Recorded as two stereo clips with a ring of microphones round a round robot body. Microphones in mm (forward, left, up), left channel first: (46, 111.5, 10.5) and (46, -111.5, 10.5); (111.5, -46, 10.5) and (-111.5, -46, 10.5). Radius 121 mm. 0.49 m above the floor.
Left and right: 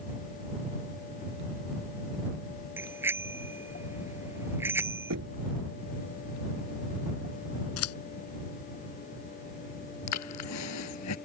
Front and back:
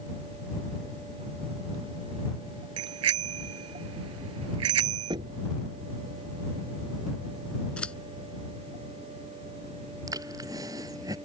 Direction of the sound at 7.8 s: 85° left.